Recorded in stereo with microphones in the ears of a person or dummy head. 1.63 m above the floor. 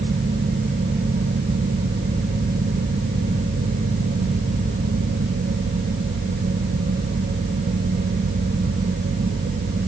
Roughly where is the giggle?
I don't hear a giggle.